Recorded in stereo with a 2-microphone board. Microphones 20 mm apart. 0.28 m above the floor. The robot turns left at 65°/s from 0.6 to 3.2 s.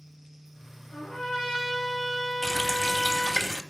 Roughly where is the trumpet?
Ahead left.